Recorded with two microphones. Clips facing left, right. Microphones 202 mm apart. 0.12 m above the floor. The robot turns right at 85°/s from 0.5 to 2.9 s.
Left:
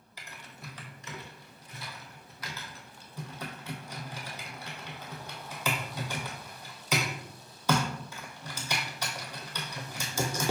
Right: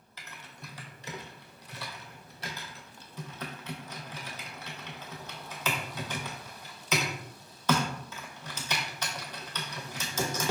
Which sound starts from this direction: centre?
Typing on a keyboard, at 0.2 s.